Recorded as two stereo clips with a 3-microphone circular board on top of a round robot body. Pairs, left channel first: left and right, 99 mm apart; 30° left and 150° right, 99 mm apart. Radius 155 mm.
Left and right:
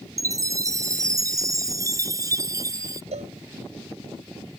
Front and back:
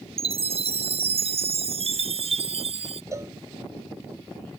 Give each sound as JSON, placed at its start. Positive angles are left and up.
{"t": 0.2, "sound": "a chime", "azimuth_deg": -145}
{"t": 3.1, "sound": "a cowbell", "azimuth_deg": -90}